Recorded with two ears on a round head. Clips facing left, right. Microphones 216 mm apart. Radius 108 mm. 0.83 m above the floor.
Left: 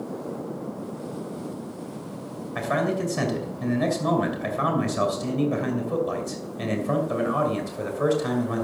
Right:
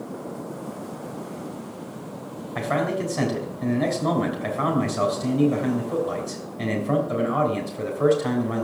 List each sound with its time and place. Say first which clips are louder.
2.5 s a man speaking: even; 15° left (ahead or behind), 3 m